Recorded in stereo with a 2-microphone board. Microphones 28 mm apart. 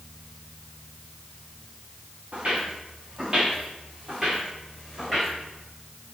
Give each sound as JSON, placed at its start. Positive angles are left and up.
{"t": 2.3, "sound": "footsteps", "side_deg": -40, "distance_m": 4.0}